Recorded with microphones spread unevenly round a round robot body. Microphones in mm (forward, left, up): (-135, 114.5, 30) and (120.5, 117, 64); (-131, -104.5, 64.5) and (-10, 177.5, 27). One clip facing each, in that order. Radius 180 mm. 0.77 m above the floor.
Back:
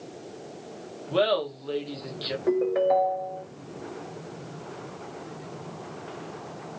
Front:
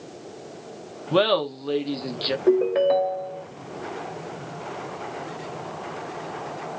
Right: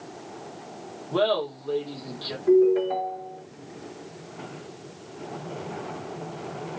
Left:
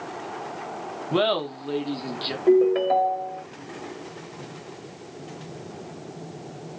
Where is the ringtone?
45° left, 1.5 m.